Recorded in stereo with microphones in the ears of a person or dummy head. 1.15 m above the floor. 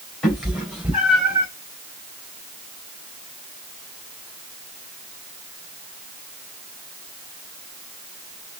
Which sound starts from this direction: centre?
A cat meowing, at 0.2 s.